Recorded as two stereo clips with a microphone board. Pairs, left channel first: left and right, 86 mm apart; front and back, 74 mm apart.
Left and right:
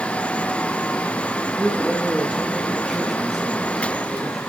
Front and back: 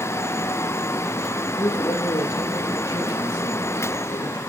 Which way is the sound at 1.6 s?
5° right.